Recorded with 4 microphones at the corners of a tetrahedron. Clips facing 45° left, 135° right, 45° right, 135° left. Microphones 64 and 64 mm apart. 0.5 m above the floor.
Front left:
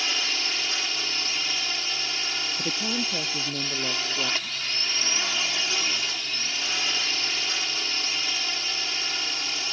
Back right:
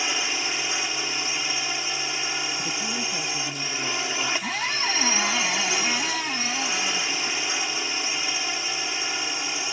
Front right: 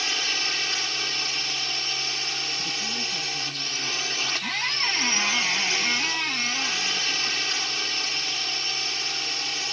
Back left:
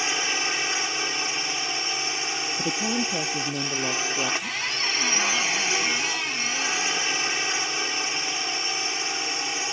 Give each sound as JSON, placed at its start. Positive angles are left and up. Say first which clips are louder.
{"t": 0.0, "sound": "a drone", "louder": "back right 2 dB, back left 3 dB", "azimuth_deg": 180}
{"t": 2.6, "sound": "a woman speaking", "louder": "even, back left 6 dB", "azimuth_deg": 110}
{"t": 4.4, "sound": "a squeak", "louder": "back right 6 dB, front right 1 dB", "azimuth_deg": -120}